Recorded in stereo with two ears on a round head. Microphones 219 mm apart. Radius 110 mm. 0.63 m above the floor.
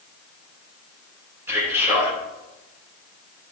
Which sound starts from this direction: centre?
A man speaking, at 1.5 s.